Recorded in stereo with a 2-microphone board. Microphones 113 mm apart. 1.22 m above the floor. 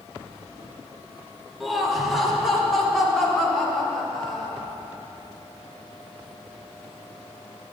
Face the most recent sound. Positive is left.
turn(degrees=5)  # may be behind; listen again after turning